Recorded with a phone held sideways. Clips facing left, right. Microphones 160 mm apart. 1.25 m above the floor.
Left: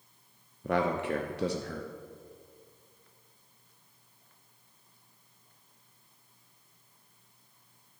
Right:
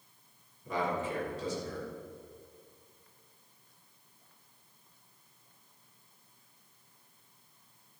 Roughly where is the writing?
I don't hear writing.